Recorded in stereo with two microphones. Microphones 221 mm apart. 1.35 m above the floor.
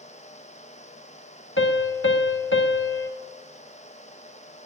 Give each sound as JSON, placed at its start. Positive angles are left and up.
{"t": 1.6, "sound": "a piano", "side_deg": 60, "distance_m": 0.9}